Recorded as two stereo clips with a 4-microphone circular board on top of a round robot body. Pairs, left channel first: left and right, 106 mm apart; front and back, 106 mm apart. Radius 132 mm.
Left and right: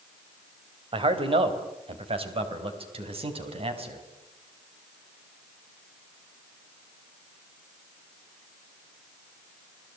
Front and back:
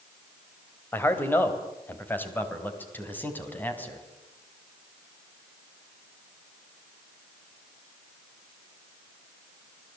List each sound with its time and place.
0.9 s a man speaking: 65° right, 3 m; by 4.0 s 70° right, 5 m